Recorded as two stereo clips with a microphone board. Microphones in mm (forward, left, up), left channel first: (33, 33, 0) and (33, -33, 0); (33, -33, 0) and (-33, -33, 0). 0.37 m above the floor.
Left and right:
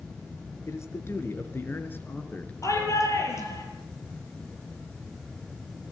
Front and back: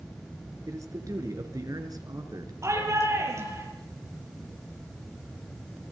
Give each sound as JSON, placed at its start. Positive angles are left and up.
{"t": 0.7, "sound": "a man speaking", "azimuth_deg": 140, "distance_m": 4.5}
{"t": 2.6, "sound": "a shout", "azimuth_deg": 135, "distance_m": 7.5}